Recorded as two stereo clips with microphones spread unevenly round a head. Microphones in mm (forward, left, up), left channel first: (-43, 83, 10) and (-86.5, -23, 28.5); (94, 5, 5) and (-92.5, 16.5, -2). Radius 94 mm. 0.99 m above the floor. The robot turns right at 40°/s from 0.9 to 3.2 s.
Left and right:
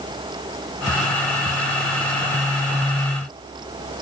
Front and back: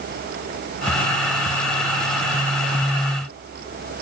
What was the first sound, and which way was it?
Only background noise.